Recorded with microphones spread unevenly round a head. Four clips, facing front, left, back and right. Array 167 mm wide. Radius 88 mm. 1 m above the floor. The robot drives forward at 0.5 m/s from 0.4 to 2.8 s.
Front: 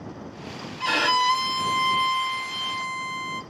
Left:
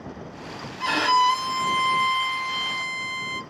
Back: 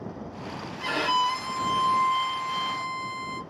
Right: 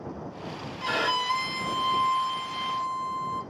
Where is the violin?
45° left, 1.7 m; by 3.4 s 85° left, 1.2 m.